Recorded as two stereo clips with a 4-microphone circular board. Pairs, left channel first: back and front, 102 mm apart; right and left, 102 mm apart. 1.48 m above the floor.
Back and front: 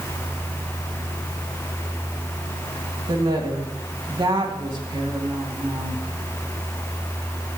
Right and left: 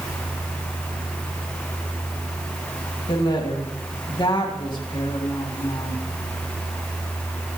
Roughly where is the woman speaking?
Ahead right.